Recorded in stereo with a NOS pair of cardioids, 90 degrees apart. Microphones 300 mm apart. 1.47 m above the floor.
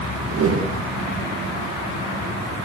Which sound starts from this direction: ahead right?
A whoosh, at 0.3 s.